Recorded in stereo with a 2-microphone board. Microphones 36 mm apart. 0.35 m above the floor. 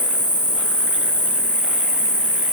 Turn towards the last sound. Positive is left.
turn(degrees=45)  # may be behind; listen again after turning